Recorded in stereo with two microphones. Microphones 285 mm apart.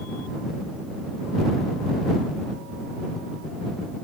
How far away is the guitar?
I don't hear a guitar.